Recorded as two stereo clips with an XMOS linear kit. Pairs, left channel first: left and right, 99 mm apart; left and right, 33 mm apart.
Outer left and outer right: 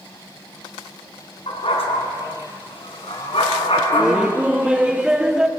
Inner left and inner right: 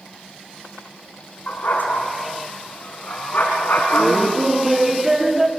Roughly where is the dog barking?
Left.